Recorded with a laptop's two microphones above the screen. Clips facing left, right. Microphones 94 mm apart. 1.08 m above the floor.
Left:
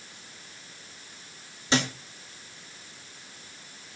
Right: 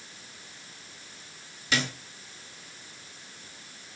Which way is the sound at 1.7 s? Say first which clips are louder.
Left 4 dB; 30° left (ahead or behind).